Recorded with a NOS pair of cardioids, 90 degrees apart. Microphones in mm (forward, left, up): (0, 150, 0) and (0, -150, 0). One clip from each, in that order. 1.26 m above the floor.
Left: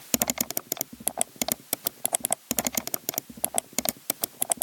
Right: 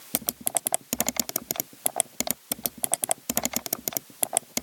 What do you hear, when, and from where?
Only background noise.